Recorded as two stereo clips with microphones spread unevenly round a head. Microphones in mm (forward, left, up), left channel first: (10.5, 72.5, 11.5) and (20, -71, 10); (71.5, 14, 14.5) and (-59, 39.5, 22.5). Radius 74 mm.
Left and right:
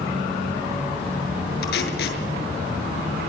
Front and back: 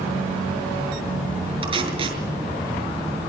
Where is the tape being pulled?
120° left, 6.5 m.